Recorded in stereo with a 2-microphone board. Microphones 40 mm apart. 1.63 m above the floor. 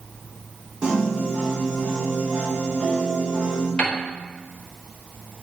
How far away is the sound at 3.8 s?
About 1.2 m.